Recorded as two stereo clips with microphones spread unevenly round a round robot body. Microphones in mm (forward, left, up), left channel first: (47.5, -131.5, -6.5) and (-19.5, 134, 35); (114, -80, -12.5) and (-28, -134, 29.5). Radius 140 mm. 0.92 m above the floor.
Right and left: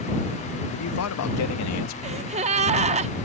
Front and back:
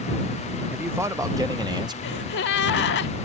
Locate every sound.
0.7 s a man speaking: 70° right; by 1.9 s 90° right
2.0 s a gasp: 40° left